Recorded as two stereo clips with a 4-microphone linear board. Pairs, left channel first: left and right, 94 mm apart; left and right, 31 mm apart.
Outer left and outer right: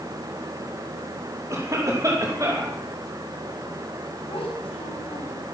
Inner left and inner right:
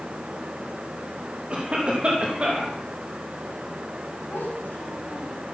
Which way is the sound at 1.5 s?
35° right (ahead or behind).